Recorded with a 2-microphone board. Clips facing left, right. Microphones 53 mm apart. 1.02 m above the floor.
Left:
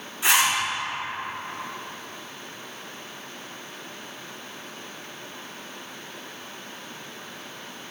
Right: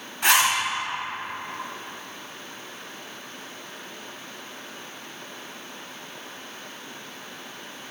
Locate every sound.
0.2 s a zipper: 60° right (ahead or behind), 2 m